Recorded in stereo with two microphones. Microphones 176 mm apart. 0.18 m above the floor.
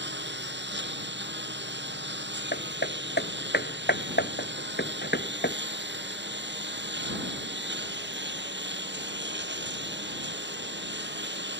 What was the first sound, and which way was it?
A lawn mower, 70° right (ahead or behind).